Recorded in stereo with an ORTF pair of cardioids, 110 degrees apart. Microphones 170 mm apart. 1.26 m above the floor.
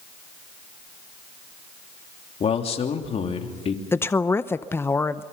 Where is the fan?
I don't hear a fan.